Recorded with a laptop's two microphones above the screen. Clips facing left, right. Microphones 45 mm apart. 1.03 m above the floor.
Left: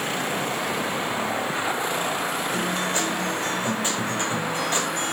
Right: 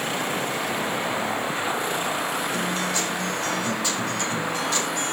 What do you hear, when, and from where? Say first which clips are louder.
2.5 s a guitar: left 1 dB; 40° left (ahead or behind), 4 m